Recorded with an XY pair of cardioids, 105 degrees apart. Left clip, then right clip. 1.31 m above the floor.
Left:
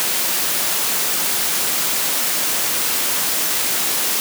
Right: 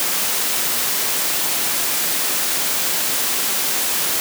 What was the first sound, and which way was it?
Only background noise.